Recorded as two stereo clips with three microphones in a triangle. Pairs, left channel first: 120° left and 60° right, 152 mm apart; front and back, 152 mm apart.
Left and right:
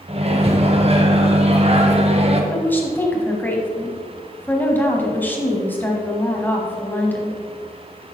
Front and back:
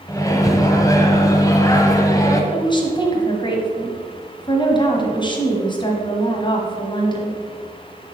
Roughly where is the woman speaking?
Ahead left.